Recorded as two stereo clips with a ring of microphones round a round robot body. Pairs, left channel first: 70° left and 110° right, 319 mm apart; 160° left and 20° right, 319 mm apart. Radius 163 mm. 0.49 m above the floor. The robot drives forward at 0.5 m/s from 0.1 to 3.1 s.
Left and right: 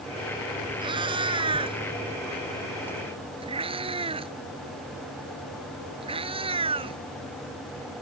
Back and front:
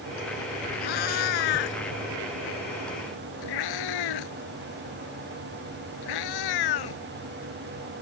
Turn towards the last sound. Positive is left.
turn(degrees=175)